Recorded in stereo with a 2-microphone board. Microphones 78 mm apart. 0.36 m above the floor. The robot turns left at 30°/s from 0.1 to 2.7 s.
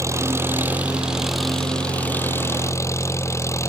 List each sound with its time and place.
0.0 s an engine running: 140° right; by 3.7 s 145° left